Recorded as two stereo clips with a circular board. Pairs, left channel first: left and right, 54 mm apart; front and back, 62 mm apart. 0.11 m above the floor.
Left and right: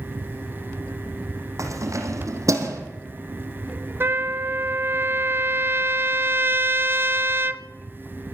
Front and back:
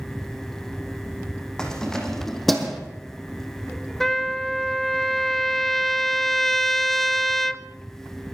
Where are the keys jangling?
80° right, 4.5 m; by 2.8 s 90° right, 3.5 m.